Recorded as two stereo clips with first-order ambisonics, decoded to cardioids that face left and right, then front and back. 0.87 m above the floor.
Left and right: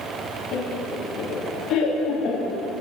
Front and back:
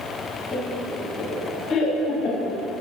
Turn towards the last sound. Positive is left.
turn(degrees=35)